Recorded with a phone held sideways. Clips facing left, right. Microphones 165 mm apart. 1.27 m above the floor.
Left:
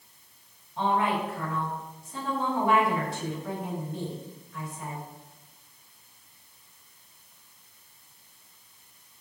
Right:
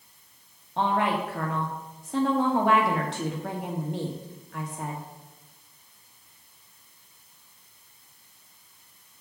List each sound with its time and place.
0.8 s a woman speaking: 80° right, 1.9 m